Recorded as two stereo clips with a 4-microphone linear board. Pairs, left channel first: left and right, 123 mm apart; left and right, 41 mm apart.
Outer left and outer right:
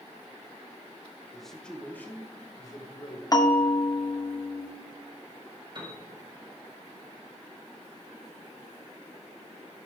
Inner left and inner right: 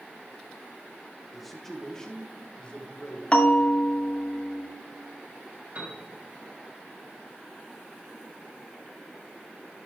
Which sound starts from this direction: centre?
A man speaking, at 1.3 s.